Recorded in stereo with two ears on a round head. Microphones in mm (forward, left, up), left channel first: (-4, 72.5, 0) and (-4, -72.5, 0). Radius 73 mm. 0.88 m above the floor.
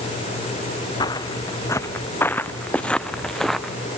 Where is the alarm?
I don't hear an alarm.